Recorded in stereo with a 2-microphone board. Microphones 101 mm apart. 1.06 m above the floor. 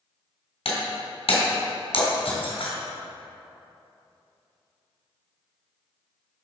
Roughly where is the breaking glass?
Left.